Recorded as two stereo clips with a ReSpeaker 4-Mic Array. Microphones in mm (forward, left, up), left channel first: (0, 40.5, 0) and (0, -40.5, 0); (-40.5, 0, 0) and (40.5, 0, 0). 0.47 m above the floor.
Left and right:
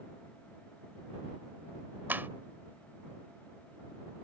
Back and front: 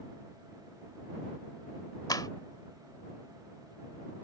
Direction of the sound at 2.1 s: 155° right.